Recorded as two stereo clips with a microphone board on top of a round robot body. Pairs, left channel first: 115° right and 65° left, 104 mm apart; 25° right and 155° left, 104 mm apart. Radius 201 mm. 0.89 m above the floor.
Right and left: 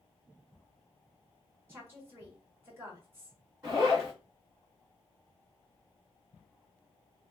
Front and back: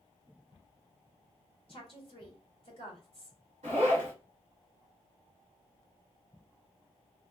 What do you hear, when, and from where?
1.7 s a woman speaking: straight ahead, 2 m
3.6 s a zipper: 135° left, 1.1 m